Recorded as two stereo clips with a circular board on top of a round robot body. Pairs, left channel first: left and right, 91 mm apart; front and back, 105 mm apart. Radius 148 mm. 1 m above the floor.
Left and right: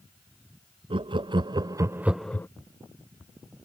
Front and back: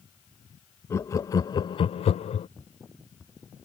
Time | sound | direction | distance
0.9 | laughter | 65° right | ?